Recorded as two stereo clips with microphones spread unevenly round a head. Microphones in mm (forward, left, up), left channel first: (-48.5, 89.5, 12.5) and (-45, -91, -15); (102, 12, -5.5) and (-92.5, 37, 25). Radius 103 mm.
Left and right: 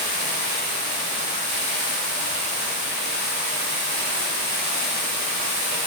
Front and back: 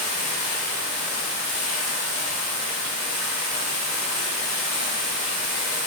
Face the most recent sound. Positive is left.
turn(degrees=-70)